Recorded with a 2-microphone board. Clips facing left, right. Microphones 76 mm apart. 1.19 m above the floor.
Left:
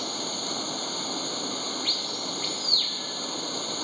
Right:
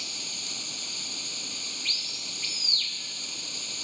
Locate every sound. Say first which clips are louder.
0.0 s running water: left 11 dB; 50° left (ahead or behind)